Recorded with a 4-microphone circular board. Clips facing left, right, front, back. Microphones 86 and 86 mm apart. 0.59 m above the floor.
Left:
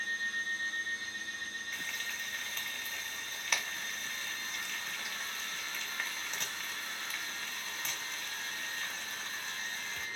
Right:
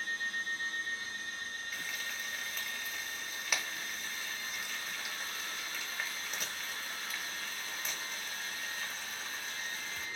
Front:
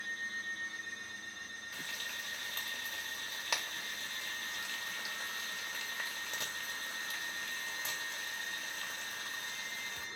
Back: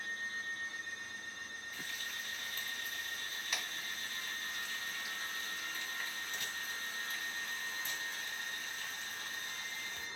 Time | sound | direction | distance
1.7 | frying | 10° right | 0.7 m